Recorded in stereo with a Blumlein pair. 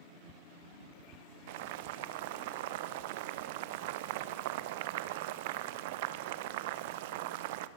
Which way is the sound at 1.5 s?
50° right.